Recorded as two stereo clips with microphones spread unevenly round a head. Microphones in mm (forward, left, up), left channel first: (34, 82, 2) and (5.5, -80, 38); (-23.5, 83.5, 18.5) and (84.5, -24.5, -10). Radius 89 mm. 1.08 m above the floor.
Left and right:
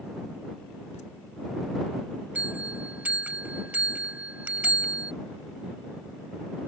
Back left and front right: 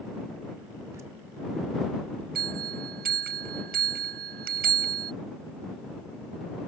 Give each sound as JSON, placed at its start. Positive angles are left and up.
{"t": 0.9, "sound": "laughter", "azimuth_deg": 25}
{"t": 2.4, "sound": "a bell", "azimuth_deg": -20}